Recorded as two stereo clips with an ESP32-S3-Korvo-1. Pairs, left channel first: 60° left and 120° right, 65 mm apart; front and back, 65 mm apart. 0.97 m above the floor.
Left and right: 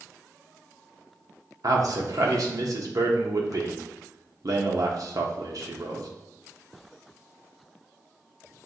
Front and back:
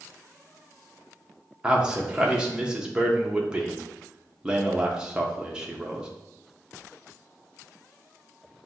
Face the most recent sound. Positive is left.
turn(degrees=-105)